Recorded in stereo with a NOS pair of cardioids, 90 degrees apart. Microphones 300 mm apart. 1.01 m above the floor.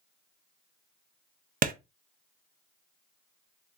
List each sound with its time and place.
1.6 s a clap: 30° right, 0.5 m